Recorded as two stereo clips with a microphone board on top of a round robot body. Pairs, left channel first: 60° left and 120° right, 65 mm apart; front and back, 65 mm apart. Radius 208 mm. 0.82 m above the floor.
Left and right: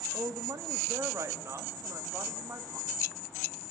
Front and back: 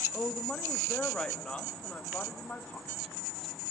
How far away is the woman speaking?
About 2.5 m.